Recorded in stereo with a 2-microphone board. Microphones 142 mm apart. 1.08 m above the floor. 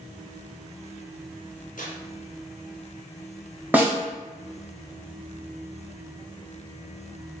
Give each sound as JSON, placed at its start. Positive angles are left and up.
{"t": 1.8, "sound": "tearing paper", "side_deg": 70, "distance_m": 0.9}
{"t": 3.7, "sound": "a snare drum", "side_deg": -10, "distance_m": 0.6}